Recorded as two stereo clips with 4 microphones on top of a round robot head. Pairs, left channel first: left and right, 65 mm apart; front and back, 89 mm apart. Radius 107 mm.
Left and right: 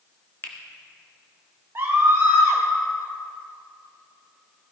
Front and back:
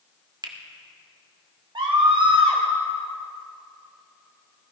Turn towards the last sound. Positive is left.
turn(degrees=-145)